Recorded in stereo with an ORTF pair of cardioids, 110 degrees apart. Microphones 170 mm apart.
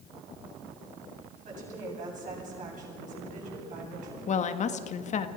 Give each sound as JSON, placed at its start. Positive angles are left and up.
{"t": 1.4, "sound": "a woman speaking", "azimuth_deg": -50, "distance_m": 9.0}
{"t": 4.3, "sound": "a woman speaking", "azimuth_deg": 45, "distance_m": 1.6}